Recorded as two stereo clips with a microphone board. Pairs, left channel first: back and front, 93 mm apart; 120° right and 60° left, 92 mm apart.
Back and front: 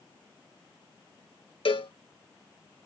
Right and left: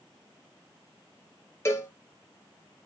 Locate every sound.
1.6 s a cowbell: straight behind, 0.7 m